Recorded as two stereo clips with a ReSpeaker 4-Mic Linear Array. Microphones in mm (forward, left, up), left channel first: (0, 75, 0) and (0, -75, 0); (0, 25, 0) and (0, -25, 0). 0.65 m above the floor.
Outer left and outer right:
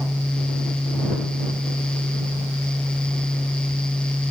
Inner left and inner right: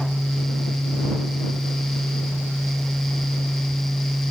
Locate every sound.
Only background noise.